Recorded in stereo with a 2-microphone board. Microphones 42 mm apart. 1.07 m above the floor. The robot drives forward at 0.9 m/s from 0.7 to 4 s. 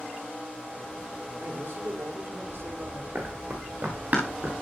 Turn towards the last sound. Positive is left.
turn(degrees=-45)  # may be behind; listen again after turning